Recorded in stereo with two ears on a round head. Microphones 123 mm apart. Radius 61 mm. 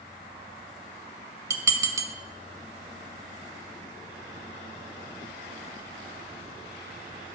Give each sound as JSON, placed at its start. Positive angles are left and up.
{"t": 1.5, "sound": "dishes clattering", "side_deg": -20, "distance_m": 0.8}